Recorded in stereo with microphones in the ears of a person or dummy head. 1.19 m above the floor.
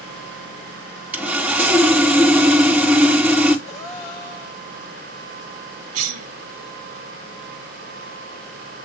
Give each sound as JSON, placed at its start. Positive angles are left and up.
{"t": 1.1, "sound": "sawing", "side_deg": -5, "distance_m": 1.5}
{"t": 3.7, "sound": "a gasp", "side_deg": 50, "distance_m": 6.5}
{"t": 5.9, "sound": "a cough", "side_deg": -85, "distance_m": 1.0}